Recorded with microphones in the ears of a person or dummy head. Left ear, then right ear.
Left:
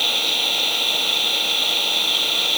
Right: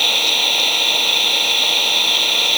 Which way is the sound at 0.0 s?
15° right (ahead or behind).